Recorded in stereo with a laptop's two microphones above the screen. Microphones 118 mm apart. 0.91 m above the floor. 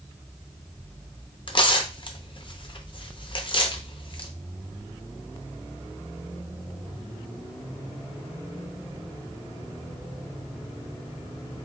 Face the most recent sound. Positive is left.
turn(degrees=45)  # may be behind; listen again after turning